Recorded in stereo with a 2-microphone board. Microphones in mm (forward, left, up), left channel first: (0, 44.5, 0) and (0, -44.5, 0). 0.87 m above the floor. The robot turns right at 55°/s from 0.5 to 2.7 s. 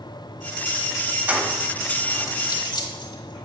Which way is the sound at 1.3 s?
20° right (ahead or behind).